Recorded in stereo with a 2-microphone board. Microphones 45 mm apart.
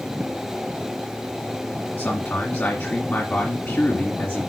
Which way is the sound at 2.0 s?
55° left (ahead or behind).